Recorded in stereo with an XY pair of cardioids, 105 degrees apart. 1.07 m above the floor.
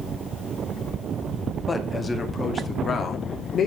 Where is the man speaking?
20° left, 1.9 m; by 3.7 s 50° left, 2.5 m.